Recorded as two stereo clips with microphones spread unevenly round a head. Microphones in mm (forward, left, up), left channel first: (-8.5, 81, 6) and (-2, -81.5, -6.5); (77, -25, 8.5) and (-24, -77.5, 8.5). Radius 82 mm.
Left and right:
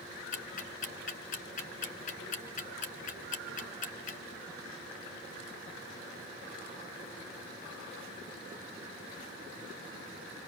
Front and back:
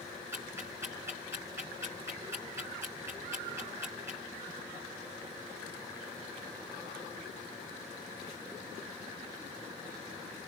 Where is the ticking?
130° left, 2.5 m.